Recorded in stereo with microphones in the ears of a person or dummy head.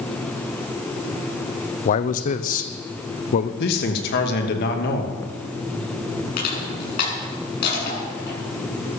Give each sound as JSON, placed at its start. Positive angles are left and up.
{"t": 1.9, "sound": "a man speaking", "side_deg": 40, "distance_m": 0.8}
{"t": 3.6, "sound": "a man speaking", "side_deg": 55, "distance_m": 2.5}
{"t": 6.4, "sound": "crushing", "side_deg": 55, "distance_m": 6.5}